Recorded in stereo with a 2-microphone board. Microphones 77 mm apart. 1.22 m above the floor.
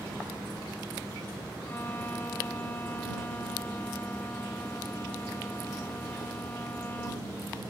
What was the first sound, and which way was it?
A violin, 25° left (ahead or behind).